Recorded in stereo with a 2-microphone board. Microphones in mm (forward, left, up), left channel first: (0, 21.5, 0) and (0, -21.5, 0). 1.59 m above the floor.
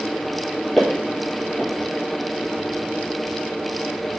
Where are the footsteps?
5° left (ahead or behind), 1.6 m.